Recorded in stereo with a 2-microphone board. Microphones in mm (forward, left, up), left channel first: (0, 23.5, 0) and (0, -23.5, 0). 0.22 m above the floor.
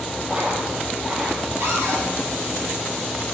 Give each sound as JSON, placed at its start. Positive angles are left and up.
{"t": 0.3, "sound": "a dropped coin", "side_deg": -20, "distance_m": 2.5}
{"t": 1.6, "sound": "a cupboard door", "side_deg": -65, "distance_m": 2.5}